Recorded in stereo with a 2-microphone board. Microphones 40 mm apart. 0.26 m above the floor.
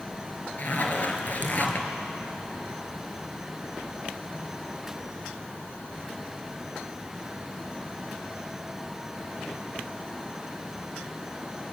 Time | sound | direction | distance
0.6 | a zipper | 45° left (ahead or behind) | 2 m